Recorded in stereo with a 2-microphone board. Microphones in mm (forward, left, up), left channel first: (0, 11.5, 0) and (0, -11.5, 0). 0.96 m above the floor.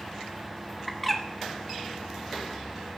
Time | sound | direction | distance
0.9 | a bird | 5° left (ahead or behind) | 1.0 m